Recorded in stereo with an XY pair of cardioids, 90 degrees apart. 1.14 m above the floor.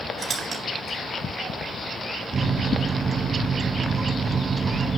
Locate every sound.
0.2 s a squeak: 65° right, 2.5 m
2.3 s a microwave: 40° right, 0.9 m